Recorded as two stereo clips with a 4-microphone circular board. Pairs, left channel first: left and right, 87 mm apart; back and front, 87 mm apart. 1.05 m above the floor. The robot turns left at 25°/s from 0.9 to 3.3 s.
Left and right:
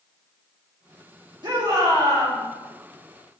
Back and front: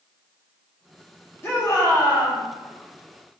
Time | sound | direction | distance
1.4 | a shout | 120° right | 1.7 m